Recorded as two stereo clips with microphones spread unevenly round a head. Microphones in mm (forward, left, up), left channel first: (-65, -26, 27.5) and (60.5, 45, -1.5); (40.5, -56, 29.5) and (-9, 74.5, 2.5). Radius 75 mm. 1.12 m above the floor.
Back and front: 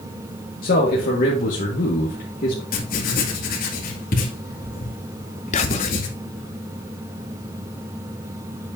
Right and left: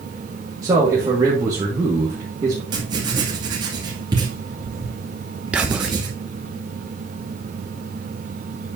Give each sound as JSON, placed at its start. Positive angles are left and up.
{"t": 0.6, "sound": "a man speaking", "azimuth_deg": 175, "distance_m": 1.6}
{"t": 2.7, "sound": "writing", "azimuth_deg": 175, "distance_m": 2.0}
{"t": 5.5, "sound": "whispering", "azimuth_deg": 175, "distance_m": 0.7}